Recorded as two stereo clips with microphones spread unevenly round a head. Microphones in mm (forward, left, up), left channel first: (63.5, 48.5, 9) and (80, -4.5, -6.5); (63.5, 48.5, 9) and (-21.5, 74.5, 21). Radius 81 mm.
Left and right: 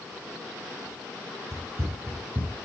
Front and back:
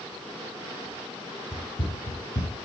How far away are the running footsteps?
About 1.7 m.